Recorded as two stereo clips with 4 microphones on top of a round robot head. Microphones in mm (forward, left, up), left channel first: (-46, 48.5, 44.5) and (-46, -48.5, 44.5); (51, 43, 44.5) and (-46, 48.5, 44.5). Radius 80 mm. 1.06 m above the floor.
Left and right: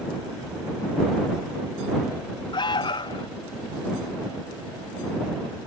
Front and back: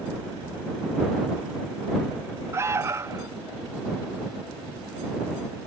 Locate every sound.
2.5 s an alarm: 120° left